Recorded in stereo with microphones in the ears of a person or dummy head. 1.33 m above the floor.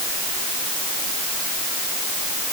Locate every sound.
Only background noise.